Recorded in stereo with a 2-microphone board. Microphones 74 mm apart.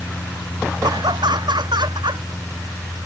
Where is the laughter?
80° right.